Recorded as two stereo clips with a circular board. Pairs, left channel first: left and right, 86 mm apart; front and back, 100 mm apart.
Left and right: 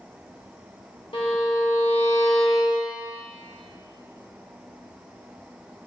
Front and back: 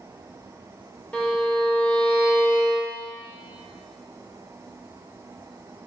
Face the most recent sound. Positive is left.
turn(degrees=80)